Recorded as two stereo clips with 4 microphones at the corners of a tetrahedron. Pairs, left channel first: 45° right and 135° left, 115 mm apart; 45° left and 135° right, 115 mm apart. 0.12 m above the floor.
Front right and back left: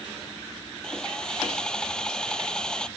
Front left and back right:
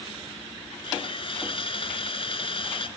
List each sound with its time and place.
0.8 s sawing: 35° left